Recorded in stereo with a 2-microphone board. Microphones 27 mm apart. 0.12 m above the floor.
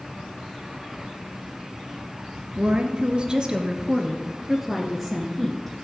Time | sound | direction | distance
2.6 | a woman speaking | 45° right (ahead or behind) | 1.7 m